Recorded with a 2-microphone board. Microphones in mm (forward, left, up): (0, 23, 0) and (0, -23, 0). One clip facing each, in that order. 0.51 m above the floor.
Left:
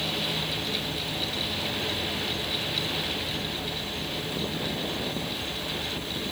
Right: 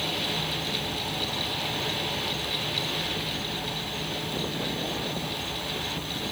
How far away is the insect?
About 1.4 m.